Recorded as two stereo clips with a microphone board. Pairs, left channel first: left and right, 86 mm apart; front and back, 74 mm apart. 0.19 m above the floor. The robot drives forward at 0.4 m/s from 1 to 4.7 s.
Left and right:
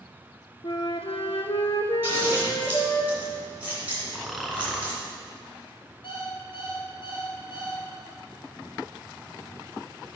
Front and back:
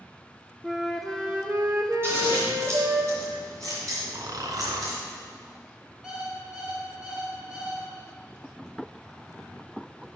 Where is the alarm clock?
105° left, 2.5 m.